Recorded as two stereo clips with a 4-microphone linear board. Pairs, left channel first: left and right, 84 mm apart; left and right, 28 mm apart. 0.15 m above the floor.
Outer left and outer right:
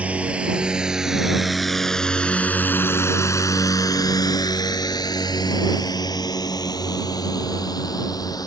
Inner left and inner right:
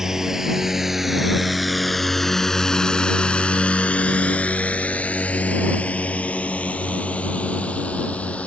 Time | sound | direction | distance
0.0 | a drone | 15° right (ahead or behind) | ?